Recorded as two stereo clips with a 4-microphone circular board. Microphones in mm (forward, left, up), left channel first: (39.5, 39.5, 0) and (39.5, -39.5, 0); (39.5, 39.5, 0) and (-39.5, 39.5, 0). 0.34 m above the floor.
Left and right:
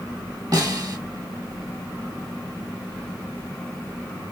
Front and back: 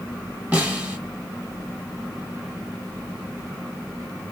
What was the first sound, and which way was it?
A snare drum, 110° right.